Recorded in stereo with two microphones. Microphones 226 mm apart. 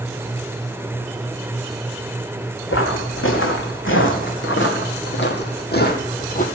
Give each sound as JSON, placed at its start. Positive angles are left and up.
{"t": 2.7, "sound": "footsteps", "side_deg": 70, "distance_m": 3.5}